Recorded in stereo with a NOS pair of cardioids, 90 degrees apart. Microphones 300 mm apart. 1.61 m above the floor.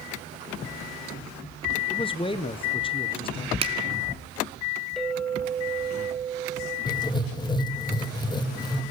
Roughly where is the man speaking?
Ahead.